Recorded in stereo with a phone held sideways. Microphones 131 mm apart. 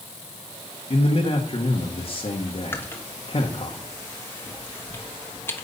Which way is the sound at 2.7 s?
15° left (ahead or behind).